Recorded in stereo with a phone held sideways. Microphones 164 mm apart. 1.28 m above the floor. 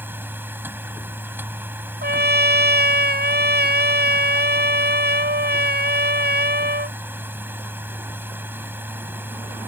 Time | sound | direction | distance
0.0 | a machine running | 10° right (ahead or behind) | ?
2.0 | a trumpet | 90° right | ?